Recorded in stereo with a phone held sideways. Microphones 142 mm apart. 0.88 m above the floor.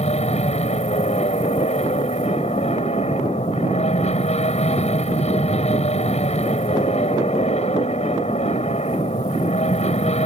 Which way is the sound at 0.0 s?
50° left (ahead or behind).